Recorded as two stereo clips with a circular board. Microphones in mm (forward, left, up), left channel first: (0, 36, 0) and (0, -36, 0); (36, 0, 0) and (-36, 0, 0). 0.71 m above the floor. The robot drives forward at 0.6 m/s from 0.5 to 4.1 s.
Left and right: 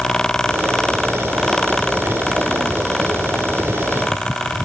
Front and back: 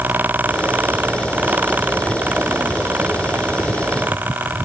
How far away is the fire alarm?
No fire alarm in this recording.